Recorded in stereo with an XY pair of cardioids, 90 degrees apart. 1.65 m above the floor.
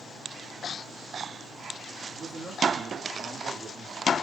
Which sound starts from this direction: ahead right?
A man speaking, at 2.1 s.